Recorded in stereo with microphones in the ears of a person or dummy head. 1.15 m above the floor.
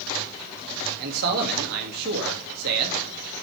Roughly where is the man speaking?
Right.